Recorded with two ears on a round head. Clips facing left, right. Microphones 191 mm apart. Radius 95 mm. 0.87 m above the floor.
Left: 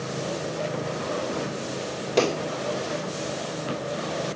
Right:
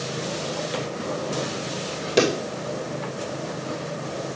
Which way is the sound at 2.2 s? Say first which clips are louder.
Right 2 dB; 20° right (ahead or behind).